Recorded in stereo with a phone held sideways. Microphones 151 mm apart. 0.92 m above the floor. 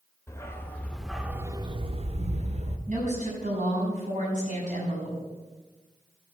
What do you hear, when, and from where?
0.3 s a dog barking: 20° left (ahead or behind), 1.1 m; by 2.8 s 45° right (ahead or behind), 1.0 m
2.9 s a woman speaking: 55° right (ahead or behind), 6 m